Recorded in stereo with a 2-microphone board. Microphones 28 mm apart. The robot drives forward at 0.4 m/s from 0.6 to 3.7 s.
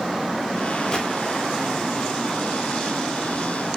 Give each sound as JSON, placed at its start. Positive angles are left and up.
{"t": 0.9, "sound": "a gunshot", "side_deg": 30, "distance_m": 0.7}